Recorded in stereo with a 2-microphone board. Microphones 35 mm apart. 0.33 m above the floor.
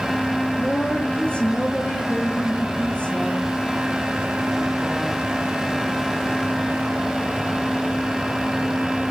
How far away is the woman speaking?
About 6.5 m.